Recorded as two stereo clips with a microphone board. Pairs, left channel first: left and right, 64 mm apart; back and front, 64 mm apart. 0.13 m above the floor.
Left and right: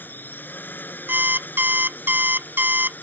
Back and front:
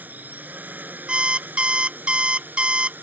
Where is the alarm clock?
60° right.